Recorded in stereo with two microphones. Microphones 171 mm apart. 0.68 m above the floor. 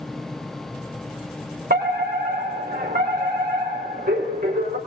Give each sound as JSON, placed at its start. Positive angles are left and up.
{"t": 1.7, "sound": "a fire alarm", "side_deg": -65, "distance_m": 4.5}